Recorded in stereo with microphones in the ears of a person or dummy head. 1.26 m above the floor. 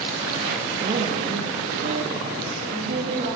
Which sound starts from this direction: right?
A woman speaking, at 0.8 s.